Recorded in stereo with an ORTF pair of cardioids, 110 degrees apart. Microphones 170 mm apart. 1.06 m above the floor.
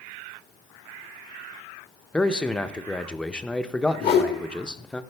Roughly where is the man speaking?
Ahead.